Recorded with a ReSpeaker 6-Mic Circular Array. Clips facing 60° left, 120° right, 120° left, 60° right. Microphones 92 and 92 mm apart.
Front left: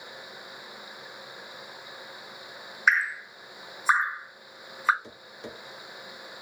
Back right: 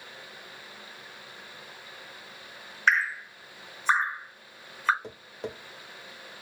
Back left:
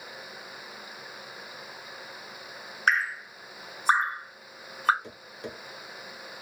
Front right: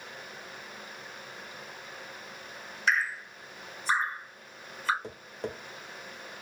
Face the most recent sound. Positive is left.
turn(degrees=-95)